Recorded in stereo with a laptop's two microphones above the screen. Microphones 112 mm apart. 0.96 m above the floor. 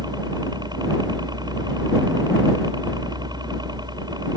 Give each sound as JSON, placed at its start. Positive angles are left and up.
{"t": 0.0, "sound": "a helicopter", "side_deg": -40}